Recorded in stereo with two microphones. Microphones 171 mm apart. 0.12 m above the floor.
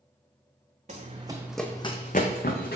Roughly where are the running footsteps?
Right.